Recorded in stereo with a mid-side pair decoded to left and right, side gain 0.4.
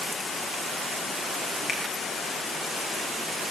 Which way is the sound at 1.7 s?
40° left.